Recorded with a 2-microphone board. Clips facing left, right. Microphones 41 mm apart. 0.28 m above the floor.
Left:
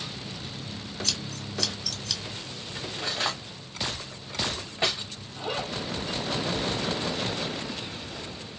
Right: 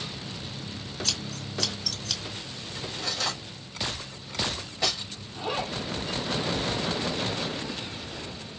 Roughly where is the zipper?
Centre.